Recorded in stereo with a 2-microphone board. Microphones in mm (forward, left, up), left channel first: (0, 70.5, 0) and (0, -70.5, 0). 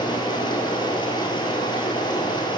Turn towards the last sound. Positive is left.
turn(degrees=35)  # may be behind; listen again after turning